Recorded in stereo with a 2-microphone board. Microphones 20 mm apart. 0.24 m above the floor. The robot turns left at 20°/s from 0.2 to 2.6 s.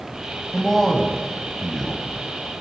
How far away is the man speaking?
About 1.0 m.